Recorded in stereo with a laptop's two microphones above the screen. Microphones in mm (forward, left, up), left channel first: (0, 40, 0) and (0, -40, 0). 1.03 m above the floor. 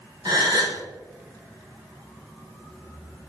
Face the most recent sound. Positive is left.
turn(degrees=-55)  # may be behind; listen again after turning